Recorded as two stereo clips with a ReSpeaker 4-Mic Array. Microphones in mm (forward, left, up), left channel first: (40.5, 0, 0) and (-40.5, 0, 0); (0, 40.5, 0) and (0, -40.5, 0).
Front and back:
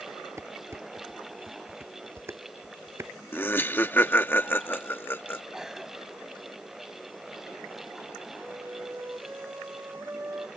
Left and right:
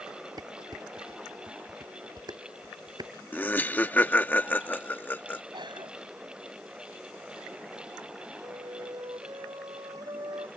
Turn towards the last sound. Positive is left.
turn(degrees=-120)